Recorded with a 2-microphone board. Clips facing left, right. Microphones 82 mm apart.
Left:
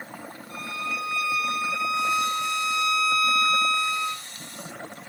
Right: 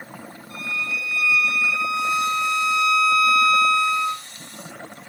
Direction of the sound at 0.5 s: 45° left (ahead or behind).